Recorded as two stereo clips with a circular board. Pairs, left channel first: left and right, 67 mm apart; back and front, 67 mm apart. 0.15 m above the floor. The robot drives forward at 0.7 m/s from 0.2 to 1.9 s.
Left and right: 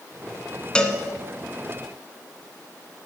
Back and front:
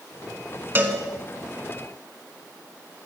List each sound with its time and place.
0.8 s a cowbell: 25° left, 0.8 m; by 1.0 s 40° left, 0.7 m